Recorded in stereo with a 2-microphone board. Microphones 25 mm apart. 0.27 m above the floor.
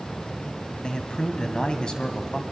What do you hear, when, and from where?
0.8 s a man speaking: 35° left (ahead or behind), 1.8 m